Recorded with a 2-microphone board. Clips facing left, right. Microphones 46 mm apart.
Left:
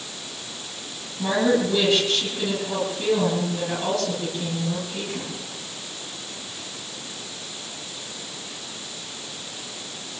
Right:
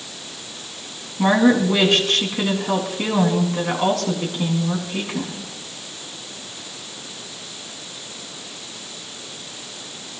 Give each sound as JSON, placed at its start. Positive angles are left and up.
{"t": 1.2, "sound": "a woman speaking", "side_deg": -65, "distance_m": 5.0}